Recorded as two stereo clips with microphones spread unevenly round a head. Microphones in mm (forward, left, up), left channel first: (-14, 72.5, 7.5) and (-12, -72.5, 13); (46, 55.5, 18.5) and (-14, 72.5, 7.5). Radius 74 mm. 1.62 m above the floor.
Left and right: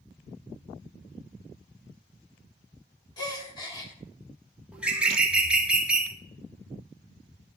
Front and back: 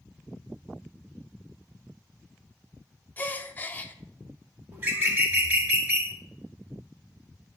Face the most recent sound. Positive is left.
turn(degrees=-155)